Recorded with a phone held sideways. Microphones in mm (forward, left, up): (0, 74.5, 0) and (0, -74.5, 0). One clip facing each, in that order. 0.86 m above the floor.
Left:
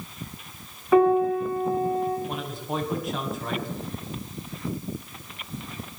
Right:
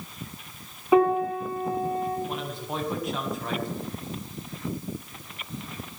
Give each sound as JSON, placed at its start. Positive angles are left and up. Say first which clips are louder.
{"t": 0.9, "sound": "a piano", "louder": "left 2 dB", "side_deg": -15, "distance_m": 7.0}
{"t": 2.3, "sound": "a man speaking", "louder": "left 1 dB", "side_deg": 0, "distance_m": 7.0}